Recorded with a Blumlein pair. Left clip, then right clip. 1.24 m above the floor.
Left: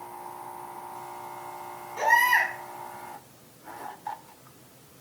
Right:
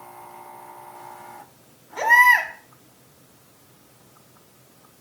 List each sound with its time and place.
2.0 s a baby crying: 20° right, 5 m